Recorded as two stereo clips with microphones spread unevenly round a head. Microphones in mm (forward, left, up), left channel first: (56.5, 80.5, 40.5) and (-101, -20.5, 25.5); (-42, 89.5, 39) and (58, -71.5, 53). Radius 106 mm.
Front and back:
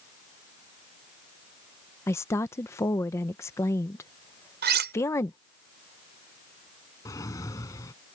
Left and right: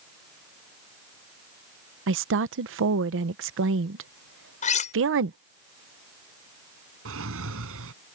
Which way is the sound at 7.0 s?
40° right.